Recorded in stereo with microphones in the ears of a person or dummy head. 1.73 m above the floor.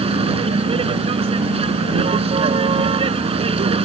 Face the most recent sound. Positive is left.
turn(degrees=-30)  # may be behind; listen again after turning